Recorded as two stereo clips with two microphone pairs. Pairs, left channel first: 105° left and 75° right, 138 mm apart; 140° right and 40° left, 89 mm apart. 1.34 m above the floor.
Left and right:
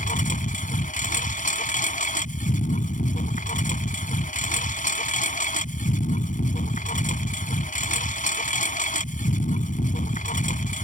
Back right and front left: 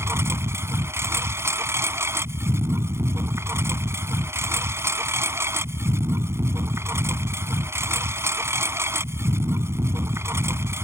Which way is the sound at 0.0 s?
100° left.